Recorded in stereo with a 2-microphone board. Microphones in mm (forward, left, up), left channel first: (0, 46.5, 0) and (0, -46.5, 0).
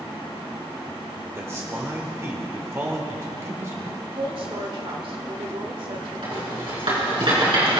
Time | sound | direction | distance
1.4 | a man speaking | 30° right (ahead or behind) | 1.5 m
4.0 | a woman speaking | 55° right (ahead or behind) | 1.4 m
6.2 | a rattle | 65° right (ahead or behind) | 4.5 m